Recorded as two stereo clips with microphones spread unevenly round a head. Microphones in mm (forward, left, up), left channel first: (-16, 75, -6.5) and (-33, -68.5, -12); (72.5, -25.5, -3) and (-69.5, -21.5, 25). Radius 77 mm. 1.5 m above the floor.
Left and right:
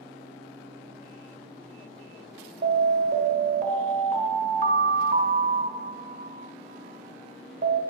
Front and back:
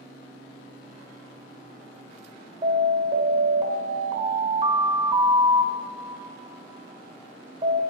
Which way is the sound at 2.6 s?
135° right.